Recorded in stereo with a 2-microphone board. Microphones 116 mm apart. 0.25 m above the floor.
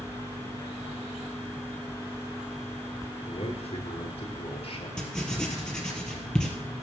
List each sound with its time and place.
3.2 s a man speaking: 60° left (ahead or behind), 3.5 m; by 4.9 s 55° left (ahead or behind), 4.5 m
5.0 s writing: 5° left (ahead or behind), 2.5 m